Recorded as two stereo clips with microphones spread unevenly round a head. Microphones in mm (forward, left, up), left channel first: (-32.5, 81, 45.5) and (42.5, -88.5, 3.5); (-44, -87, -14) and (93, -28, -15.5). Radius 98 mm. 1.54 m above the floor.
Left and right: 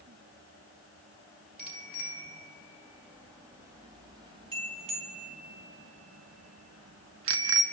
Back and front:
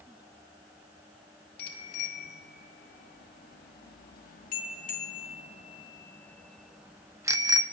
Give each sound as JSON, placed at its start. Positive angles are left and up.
{"t": 1.6, "sound": "a bicycle bell", "azimuth_deg": -155, "distance_m": 3.0}